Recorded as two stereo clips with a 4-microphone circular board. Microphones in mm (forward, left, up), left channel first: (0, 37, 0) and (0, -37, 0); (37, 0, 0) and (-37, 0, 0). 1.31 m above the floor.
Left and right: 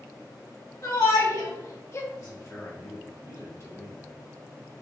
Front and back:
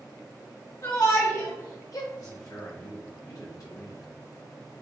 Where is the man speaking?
40° left, 1.3 m.